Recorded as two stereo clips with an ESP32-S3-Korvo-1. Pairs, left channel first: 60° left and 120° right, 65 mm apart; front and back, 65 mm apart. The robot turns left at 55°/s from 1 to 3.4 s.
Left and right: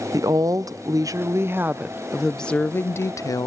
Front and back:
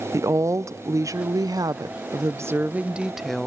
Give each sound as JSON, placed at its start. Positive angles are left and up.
{"t": 0.1, "sound": "a woman speaking", "azimuth_deg": -145, "distance_m": 0.6}